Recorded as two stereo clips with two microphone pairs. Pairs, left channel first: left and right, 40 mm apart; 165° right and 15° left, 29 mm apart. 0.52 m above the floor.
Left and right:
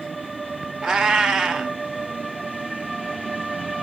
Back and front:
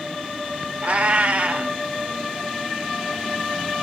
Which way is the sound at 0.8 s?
15° right.